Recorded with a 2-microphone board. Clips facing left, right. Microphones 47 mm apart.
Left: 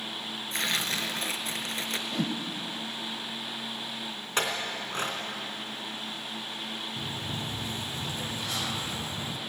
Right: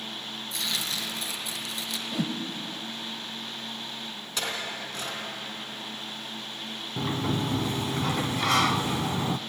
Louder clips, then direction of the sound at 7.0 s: Right 7 dB; 80° right.